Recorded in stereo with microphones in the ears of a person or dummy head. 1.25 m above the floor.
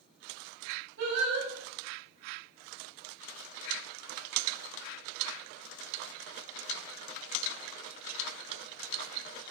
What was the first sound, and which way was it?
Singing, 80° right.